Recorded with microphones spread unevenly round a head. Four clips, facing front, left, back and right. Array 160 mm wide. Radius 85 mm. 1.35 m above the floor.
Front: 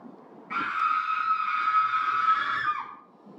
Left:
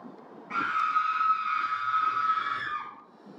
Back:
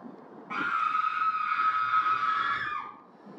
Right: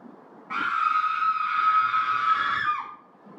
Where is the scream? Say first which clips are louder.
Right 3 dB, front 2 dB; 150° right, 2.5 m; by 2.9 s 40° right, 1.2 m.